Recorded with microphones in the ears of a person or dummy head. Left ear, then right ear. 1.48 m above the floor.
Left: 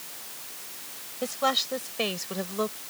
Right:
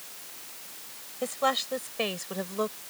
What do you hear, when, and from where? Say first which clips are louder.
1.2 s a woman speaking: left 1 dB; 20° right (ahead or behind); by 2.8 s 10° right (ahead or behind)